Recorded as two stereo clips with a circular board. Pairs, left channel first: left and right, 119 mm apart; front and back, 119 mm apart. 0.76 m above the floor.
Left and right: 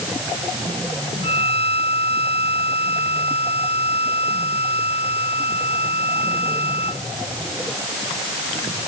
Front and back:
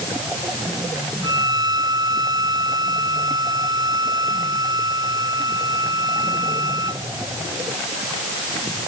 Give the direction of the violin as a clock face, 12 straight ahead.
8 o'clock.